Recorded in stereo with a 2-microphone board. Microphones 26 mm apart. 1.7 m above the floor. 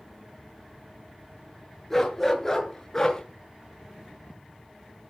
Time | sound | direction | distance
1.9 | a dog barking | 5° left (ahead or behind) | 7 m